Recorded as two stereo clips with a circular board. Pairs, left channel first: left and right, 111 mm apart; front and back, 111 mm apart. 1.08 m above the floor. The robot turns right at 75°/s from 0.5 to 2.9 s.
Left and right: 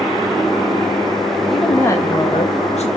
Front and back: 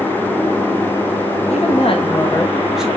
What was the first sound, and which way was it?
A woman speaking, 5° right.